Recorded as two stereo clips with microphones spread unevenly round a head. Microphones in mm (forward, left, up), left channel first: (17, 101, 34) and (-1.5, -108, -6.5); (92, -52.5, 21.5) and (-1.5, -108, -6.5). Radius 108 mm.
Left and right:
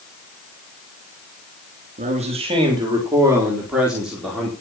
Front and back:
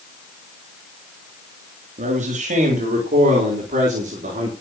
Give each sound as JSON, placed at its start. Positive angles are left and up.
{"t": 2.0, "sound": "a man speaking", "azimuth_deg": -155, "distance_m": 3.5}